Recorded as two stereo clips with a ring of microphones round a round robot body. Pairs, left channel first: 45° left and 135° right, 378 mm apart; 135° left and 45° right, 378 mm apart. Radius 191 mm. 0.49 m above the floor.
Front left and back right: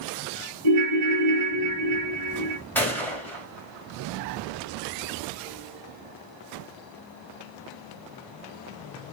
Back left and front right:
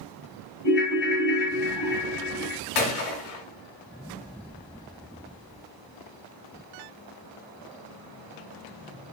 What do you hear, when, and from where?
0.6 s a ringtone: 170° right, 1.2 m
2.8 s a gunshot: 130° left, 1.0 m